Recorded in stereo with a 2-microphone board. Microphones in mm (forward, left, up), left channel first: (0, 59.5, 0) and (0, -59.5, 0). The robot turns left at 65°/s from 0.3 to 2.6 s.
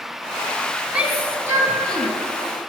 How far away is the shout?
About 1.6 m.